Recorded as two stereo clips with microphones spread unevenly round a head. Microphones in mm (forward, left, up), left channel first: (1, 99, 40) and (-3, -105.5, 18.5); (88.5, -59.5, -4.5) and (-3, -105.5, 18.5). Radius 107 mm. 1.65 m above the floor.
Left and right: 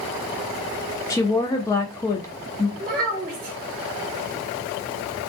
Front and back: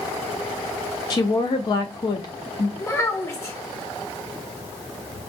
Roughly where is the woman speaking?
Ahead left.